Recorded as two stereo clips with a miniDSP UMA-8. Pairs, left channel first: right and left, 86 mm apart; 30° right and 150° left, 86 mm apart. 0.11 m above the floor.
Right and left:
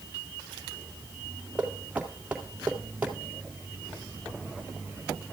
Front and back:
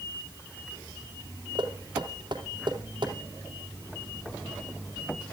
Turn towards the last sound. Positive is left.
turn(degrees=165)